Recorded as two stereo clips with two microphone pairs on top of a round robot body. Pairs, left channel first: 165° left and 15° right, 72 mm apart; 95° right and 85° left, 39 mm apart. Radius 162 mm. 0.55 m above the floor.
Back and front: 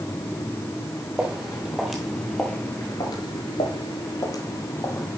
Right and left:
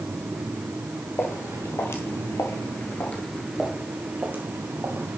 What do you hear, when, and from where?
1.2 s footsteps: 95° right, 1.6 m; by 5.2 s 115° left, 1.5 m